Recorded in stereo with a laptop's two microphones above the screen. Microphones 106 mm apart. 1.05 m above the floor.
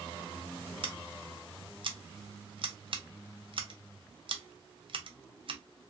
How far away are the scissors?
About 0.6 m.